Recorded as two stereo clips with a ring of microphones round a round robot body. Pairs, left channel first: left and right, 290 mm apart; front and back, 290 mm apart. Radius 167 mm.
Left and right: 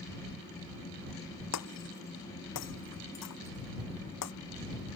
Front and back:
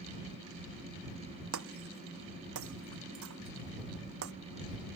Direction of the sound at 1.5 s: 130° left.